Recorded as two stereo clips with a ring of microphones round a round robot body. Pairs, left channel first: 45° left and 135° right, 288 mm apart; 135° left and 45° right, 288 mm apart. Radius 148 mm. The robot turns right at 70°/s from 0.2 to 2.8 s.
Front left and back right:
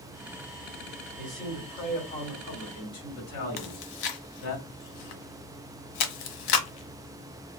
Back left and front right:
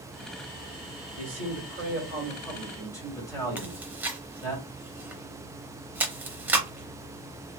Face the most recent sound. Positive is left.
turn(degrees=40)